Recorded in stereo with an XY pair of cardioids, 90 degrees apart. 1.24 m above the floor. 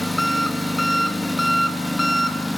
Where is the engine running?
10° left, 1.5 m.